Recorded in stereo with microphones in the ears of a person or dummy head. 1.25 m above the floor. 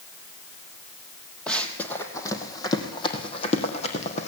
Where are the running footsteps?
5° left (ahead or behind), 3 m; by 4.3 s 35° left (ahead or behind), 4.5 m.